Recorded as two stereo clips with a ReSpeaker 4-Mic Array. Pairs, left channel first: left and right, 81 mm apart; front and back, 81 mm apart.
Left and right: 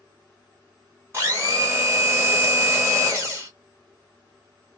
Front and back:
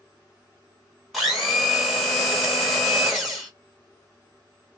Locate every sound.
1.1 s a blender: 95° right, 1.4 m